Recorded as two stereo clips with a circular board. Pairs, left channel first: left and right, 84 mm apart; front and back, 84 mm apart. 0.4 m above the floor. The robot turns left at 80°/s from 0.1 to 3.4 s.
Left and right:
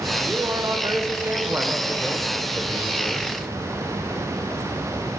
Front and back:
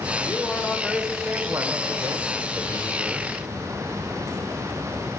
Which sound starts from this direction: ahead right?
A man speaking, at 0.2 s.